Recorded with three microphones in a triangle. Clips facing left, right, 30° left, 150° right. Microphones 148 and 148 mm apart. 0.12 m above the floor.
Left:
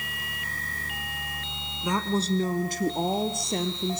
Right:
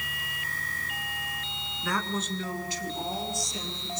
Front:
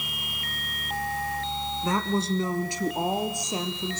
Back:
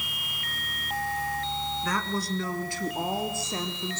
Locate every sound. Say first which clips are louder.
1.8 s a woman speaking: left 5 dB, front 7 dB; 45° left, 1.1 m; by 4.0 s 105° left, 2.5 m